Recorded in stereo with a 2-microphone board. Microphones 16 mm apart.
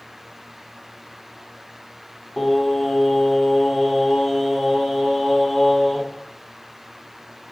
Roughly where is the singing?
Left.